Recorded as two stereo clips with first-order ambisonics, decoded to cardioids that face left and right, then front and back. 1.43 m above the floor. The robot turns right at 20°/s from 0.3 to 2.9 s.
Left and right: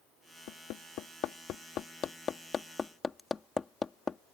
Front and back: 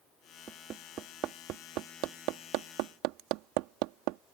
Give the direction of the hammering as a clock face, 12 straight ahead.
8 o'clock.